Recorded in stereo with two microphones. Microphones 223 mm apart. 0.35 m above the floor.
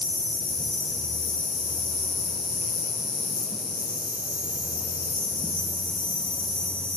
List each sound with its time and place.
0.0 s an insect: 5° right (ahead or behind), 6 m